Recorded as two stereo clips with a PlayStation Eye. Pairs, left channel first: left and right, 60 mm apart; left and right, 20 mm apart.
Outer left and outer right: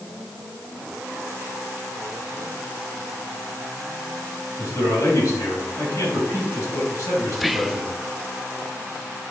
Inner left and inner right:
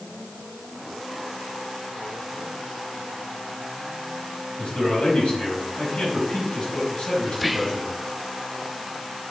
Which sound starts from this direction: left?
A man speaking, at 4.6 s.